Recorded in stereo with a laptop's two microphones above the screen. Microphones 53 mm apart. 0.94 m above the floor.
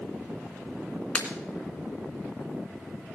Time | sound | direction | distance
1.1 | breaking glass | 20° left (ahead or behind) | 2.0 m